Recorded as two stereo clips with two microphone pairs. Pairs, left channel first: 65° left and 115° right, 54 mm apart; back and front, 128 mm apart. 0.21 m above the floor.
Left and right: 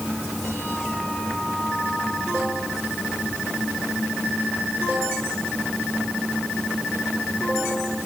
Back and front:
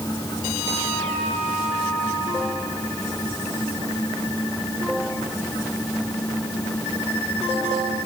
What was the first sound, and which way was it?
Only background noise.